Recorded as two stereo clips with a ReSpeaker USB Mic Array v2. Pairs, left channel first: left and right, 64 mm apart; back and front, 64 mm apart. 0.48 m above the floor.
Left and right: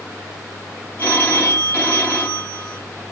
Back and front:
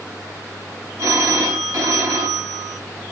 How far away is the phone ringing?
About 1.5 m.